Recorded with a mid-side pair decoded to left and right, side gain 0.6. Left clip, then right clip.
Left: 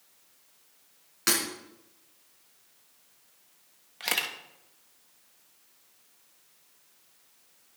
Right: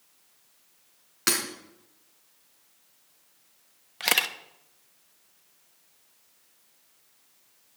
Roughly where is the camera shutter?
Ahead right.